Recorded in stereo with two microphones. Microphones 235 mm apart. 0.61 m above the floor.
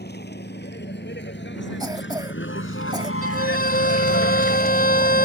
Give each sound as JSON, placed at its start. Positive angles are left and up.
{"t": 0.0, "sound": "a vehicle", "side_deg": 45}
{"t": 1.8, "sound": "a cough", "side_deg": -15}
{"t": 3.2, "sound": "a violin", "side_deg": 40}